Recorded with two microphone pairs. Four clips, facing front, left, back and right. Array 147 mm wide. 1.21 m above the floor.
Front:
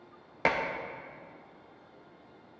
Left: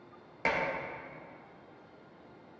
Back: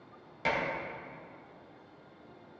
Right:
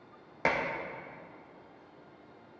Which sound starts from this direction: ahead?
Dishes clattering, at 0.5 s.